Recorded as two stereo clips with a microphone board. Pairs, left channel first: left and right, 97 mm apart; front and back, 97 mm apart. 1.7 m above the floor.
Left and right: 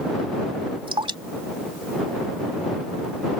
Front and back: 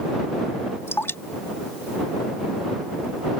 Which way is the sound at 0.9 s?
65° right.